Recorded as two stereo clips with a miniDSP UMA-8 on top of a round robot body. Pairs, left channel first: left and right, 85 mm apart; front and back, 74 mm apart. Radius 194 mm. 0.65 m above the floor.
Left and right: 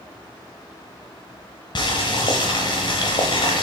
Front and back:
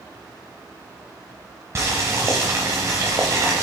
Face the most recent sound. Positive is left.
turn(degrees=125)